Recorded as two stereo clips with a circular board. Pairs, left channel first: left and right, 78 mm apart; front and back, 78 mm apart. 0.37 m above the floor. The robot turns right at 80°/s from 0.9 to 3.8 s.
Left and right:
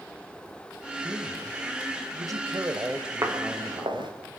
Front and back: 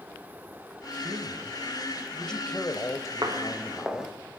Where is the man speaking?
Straight behind, 2 m; by 4.2 s 40° left, 2 m.